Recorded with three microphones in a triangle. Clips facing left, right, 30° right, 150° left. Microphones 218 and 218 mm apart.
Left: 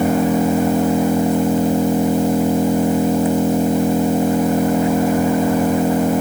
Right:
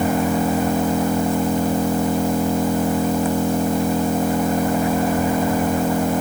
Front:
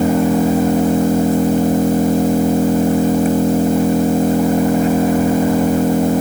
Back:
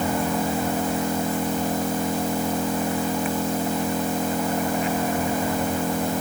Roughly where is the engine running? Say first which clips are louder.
Left 4 dB, front 10 dB; ahead.